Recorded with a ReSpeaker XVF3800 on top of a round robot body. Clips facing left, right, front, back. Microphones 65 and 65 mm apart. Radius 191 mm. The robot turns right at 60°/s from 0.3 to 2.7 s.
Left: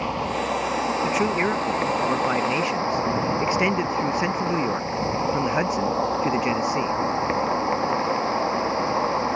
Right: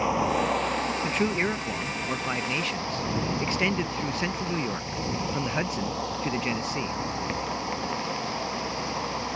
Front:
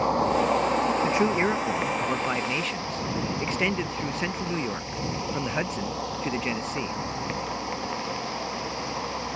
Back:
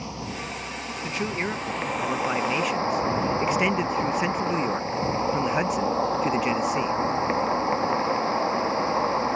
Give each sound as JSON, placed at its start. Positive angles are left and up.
{"t": 0.0, "sound": "an insect", "azimuth_deg": -10}
{"t": 1.0, "sound": "a man speaking", "azimuth_deg": 15}